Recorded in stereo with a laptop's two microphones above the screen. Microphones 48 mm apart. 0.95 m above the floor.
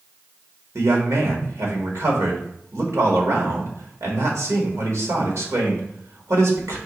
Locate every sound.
0.8 s a man speaking: 70° right (ahead or behind), 1.3 m